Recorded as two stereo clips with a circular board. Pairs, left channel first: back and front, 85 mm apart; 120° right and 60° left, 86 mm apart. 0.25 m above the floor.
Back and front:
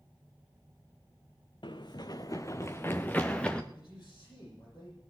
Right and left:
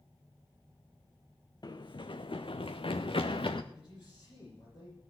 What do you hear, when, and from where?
1.6 s running footsteps: 160° right, 0.9 m; by 3.6 s 100° right, 1.3 m
3.7 s a man speaking: 145° right, 9 m